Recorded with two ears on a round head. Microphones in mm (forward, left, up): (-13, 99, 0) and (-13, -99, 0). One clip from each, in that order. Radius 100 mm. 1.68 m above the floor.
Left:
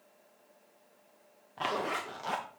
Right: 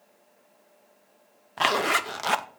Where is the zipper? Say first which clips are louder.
Right 10 dB; 45° right (ahead or behind), 0.6 m.